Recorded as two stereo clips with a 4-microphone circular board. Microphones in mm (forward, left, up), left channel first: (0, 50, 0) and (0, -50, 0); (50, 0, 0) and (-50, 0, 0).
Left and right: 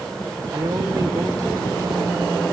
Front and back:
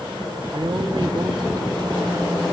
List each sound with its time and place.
0.5 s a man speaking: 145° right, 2.5 m